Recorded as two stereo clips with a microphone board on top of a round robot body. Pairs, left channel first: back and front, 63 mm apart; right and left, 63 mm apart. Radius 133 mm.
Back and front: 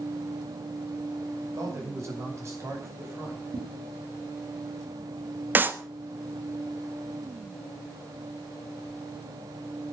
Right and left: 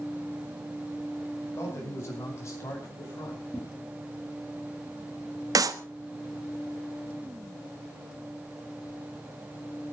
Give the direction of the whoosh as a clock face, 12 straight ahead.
12 o'clock.